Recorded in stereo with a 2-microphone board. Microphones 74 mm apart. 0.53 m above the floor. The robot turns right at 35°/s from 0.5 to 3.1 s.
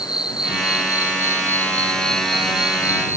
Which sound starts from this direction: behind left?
An insect, at 0.0 s.